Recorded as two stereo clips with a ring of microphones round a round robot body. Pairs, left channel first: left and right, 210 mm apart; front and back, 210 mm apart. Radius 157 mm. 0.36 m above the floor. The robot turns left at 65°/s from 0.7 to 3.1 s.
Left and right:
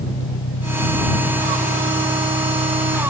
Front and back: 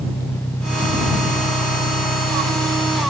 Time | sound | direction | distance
0.0 | an engine running | 80° left | ?